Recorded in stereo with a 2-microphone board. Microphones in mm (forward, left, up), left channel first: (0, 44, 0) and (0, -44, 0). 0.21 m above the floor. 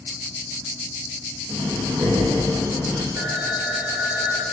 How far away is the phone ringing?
About 7.5 m.